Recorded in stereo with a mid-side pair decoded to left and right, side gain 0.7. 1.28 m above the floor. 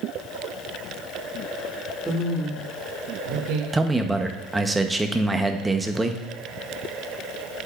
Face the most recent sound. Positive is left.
turn(degrees=-10)